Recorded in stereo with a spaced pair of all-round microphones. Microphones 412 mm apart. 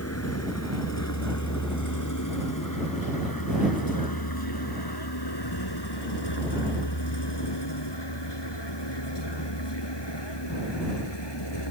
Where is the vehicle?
35° left (ahead or behind); by 11.7 s 80° left.